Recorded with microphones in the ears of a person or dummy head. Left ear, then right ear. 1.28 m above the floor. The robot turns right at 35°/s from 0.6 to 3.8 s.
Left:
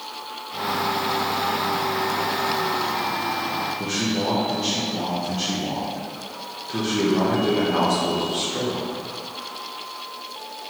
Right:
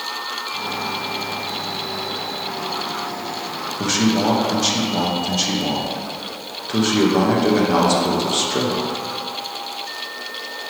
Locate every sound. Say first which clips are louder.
3.8 s a man speaking: right 5 dB; 30° right (ahead or behind), 0.6 m